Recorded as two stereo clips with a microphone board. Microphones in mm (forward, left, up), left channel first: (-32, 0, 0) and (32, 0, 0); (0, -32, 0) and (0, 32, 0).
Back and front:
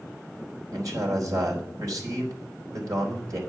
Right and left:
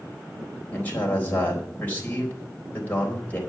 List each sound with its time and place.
0.7 s a man speaking: 25° right, 4 m